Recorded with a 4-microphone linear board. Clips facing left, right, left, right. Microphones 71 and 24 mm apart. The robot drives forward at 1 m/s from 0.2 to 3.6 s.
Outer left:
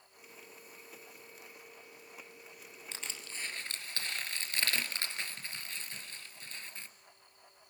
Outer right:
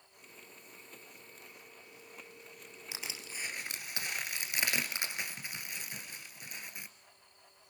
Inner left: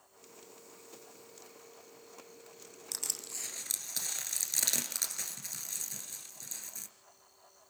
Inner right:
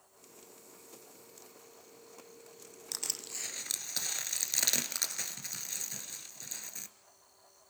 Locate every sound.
2.9 s crushing: 10° right (ahead or behind), 2.5 m; by 6.9 s 15° right (ahead or behind), 1.7 m